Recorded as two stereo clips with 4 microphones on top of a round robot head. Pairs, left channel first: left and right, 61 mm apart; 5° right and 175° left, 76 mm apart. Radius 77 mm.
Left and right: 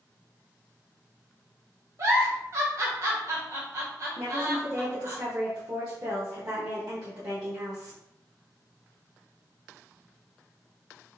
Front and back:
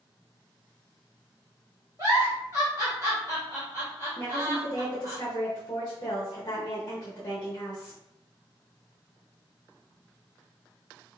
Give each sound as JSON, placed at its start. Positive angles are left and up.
{"t": 2.0, "sound": "a giggle", "azimuth_deg": -120, "distance_m": 1.0}
{"t": 4.2, "sound": "a woman speaking", "azimuth_deg": -50, "distance_m": 1.1}